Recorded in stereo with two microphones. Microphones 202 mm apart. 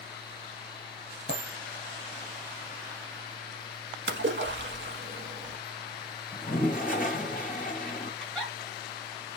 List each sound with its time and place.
1.3 s a dropped coin: 65° left (ahead or behind), 2 m
4.1 s a splash: 65° right (ahead or behind), 0.9 m
6.3 s a toilet flushing: 40° left (ahead or behind), 1.7 m
8.2 s a giggle: 5° left (ahead or behind), 3 m